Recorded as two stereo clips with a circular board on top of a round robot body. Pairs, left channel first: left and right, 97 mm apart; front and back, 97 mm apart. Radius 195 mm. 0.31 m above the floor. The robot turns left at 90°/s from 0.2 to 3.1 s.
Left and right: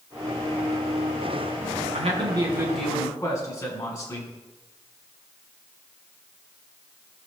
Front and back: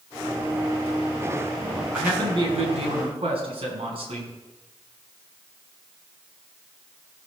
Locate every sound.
1.9 s a man speaking: 105° right, 5 m; by 4.3 s 150° left, 5 m